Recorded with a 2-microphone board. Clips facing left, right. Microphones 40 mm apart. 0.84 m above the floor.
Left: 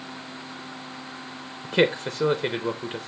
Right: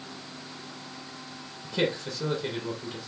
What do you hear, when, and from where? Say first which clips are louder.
1.6 s a man speaking: left 7 dB; 50° left (ahead or behind), 0.7 m